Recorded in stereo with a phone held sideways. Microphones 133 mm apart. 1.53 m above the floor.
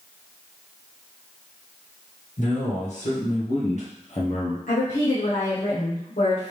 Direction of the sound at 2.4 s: 65° left (ahead or behind).